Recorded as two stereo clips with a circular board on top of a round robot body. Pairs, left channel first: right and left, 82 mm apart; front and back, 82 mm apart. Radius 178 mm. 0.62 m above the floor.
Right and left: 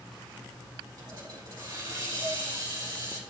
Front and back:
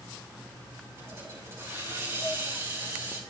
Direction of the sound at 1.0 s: 120° left.